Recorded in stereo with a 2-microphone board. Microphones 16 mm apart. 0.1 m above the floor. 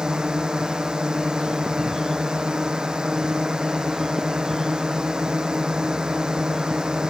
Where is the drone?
55° right (ahead or behind).